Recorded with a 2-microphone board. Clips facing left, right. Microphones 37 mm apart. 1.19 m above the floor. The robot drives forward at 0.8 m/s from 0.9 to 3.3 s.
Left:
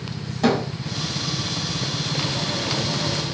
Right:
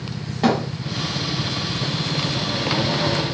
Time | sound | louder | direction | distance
0.4 | a thud | right 1 dB | 20° right (ahead or behind) | 1.7 m